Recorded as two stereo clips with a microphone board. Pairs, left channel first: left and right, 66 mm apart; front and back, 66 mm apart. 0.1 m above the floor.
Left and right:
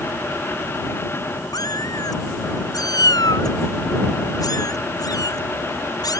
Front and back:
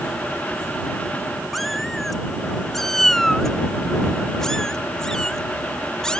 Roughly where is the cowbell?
I don't hear a cowbell.